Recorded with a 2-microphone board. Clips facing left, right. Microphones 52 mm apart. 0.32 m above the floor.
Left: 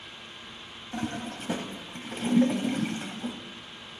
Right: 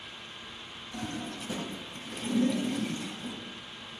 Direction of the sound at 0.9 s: 45° left (ahead or behind).